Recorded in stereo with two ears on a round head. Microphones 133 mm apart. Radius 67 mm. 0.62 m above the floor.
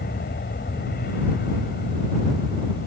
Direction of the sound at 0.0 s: 65° left (ahead or behind).